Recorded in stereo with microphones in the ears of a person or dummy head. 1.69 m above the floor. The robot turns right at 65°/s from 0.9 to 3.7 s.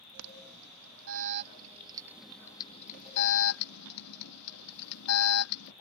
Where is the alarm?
90° right; by 5.7 s 85° left.